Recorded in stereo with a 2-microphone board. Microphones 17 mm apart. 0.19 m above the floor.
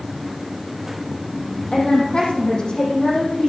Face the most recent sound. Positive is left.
turn(degrees=45)  # may be behind; listen again after turning